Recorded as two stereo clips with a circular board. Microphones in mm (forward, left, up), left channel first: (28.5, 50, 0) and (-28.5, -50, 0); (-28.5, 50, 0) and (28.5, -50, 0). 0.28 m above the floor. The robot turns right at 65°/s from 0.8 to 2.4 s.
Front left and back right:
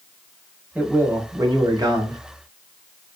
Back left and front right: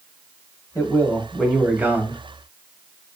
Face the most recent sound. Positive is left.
turn(degrees=-90)